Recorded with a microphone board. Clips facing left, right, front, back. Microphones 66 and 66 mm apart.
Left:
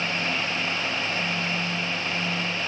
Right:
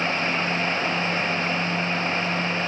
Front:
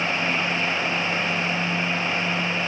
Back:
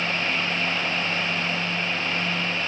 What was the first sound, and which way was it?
Only background noise.